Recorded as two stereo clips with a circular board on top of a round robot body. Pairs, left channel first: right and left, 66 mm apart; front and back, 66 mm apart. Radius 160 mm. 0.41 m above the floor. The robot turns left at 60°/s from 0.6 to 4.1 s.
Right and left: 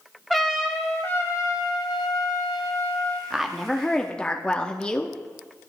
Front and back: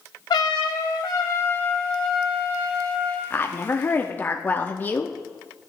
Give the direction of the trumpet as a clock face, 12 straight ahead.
12 o'clock.